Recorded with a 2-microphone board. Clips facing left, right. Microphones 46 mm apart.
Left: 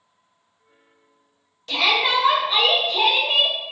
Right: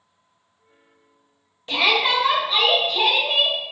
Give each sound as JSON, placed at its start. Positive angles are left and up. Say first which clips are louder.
{"t": 1.7, "sound": "a shout", "louder": "even", "side_deg": -20, "distance_m": 0.9}